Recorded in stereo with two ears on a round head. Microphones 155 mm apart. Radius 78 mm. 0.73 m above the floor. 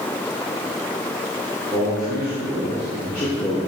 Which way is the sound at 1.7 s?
5° right (ahead or behind).